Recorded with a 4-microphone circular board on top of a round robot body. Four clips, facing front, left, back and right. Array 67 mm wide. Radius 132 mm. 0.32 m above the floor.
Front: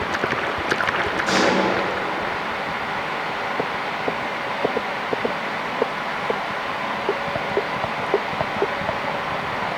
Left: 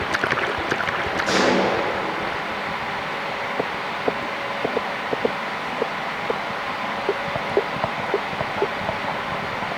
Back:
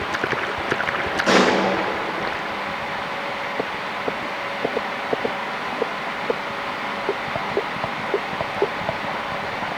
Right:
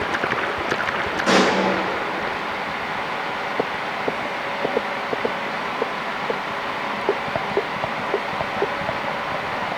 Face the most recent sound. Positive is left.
turn(degrees=-125)